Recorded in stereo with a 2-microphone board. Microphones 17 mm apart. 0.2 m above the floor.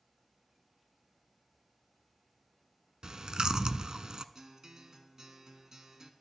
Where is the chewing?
45° right (ahead or behind), 0.5 m.